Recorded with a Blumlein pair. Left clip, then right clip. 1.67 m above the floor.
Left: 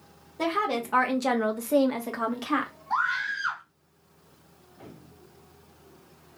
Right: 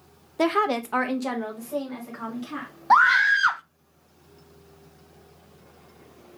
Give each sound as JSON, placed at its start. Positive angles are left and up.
{"t": 0.4, "sound": "a woman speaking", "azimuth_deg": -25, "distance_m": 0.7}
{"t": 2.9, "sound": "a scream", "azimuth_deg": -50, "distance_m": 0.5}